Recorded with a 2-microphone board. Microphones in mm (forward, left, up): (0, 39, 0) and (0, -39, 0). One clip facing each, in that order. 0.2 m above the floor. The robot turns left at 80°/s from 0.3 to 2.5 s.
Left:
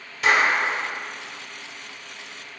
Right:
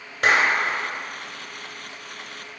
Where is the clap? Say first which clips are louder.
Even; 50° right (ahead or behind), 2 m; by 0.8 s 65° right (ahead or behind), 2 m.